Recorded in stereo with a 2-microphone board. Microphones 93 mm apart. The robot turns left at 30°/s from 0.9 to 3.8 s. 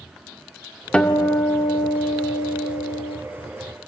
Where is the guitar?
170° left, 1.3 m; by 3.2 s 100° left, 1.3 m.